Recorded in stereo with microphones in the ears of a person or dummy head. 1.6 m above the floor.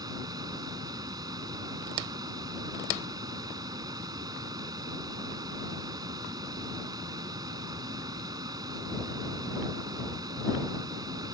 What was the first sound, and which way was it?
A fan, 20° right (ahead or behind).